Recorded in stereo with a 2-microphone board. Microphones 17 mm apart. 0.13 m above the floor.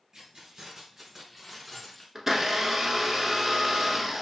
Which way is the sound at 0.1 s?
50° right (ahead or behind).